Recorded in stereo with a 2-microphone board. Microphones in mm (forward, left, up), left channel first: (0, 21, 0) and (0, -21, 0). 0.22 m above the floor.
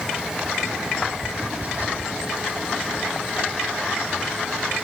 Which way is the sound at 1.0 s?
40° right (ahead or behind).